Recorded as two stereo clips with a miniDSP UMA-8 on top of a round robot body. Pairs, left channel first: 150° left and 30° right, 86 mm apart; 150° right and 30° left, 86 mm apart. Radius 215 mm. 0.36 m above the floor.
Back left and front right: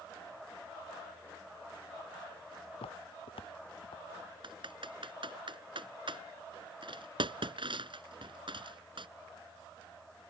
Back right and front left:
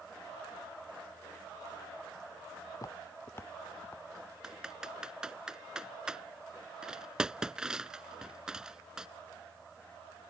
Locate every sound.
2.7 s footsteps: 160° left; by 4.0 s 130° left
4.4 s typing on a keyboard: 55° right